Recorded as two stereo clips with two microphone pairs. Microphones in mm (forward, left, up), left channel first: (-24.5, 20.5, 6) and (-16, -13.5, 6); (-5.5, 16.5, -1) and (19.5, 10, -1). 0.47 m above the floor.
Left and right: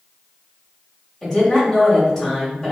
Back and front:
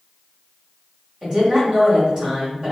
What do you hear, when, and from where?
1.2 s a woman speaking: 25° left, 1.4 m